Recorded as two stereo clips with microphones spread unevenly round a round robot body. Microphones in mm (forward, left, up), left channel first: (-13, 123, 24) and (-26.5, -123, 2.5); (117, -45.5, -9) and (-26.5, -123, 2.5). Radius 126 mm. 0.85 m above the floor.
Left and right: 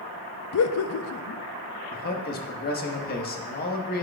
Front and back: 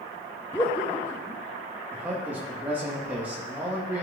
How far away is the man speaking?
About 1.0 m.